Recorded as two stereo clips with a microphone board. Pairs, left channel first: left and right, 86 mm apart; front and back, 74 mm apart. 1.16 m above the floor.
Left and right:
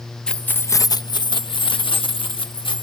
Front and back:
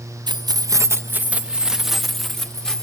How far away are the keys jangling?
About 0.6 m.